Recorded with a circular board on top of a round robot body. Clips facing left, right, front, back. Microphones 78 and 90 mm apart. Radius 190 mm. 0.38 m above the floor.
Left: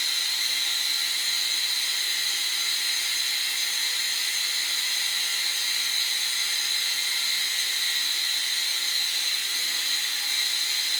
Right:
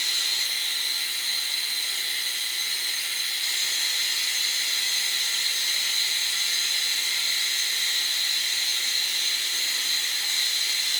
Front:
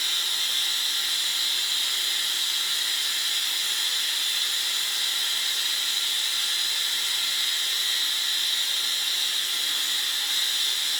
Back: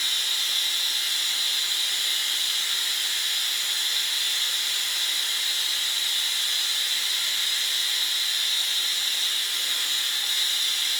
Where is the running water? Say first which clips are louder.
Even, even; 45° left, 1.5 m.